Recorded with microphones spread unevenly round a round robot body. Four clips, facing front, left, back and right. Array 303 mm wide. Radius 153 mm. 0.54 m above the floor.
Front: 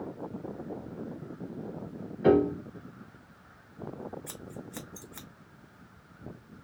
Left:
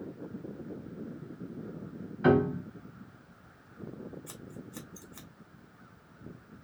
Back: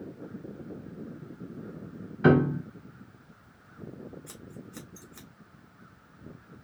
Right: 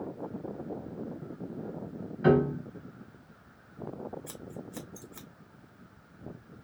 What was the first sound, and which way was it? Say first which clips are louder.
A piano: right 1 dB, back 1 dB; 165° left.